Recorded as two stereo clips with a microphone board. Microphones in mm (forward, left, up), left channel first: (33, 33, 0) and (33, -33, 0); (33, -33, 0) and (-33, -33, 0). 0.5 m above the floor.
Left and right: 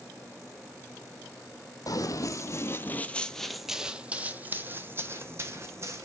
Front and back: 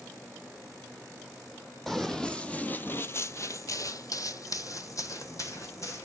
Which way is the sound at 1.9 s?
85° left.